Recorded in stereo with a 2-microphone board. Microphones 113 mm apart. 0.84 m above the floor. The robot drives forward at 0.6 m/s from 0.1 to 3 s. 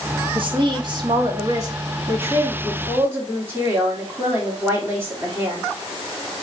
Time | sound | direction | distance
0.3 | a woman speaking | 50° right (ahead or behind) | 1.1 m